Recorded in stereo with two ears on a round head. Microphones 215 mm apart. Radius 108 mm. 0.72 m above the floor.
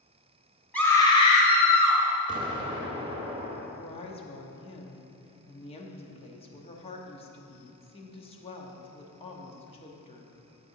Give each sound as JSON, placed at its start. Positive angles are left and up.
{"t": 0.7, "sound": "a scream", "side_deg": 5, "distance_m": 1.8}
{"t": 2.3, "sound": "an explosion", "side_deg": -20, "distance_m": 0.9}
{"t": 3.8, "sound": "a woman speaking", "side_deg": 25, "distance_m": 1.0}